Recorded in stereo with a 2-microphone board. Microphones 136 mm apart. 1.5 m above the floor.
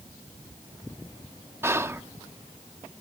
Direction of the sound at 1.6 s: 20° right (ahead or behind).